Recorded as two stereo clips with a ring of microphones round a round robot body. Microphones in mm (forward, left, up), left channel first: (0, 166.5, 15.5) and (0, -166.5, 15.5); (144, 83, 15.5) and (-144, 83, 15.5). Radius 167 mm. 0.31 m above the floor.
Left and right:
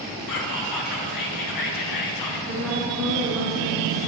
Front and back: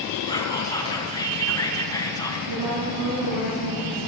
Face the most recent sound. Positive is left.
turn(degrees=180)